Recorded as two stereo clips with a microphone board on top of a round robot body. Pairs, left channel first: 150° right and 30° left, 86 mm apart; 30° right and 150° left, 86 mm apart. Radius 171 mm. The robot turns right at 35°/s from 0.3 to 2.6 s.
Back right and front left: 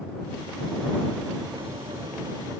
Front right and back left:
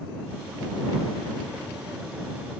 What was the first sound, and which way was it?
Only background noise.